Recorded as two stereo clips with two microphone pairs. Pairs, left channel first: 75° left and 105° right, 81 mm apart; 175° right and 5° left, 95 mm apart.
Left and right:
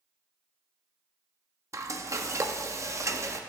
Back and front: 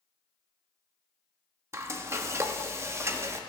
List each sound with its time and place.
1.7 s frying: 55° right, 0.6 m